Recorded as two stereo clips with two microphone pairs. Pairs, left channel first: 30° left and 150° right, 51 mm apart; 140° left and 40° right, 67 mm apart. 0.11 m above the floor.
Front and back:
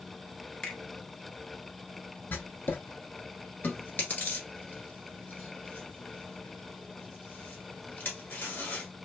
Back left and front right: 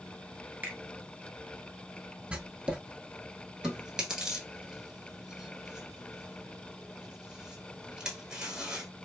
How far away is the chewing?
About 1.1 m.